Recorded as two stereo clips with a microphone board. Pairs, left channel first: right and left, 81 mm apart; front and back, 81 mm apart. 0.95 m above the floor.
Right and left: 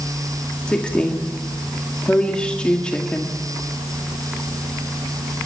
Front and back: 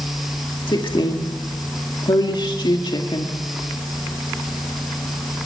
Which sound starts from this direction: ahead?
A woman speaking, at 0.7 s.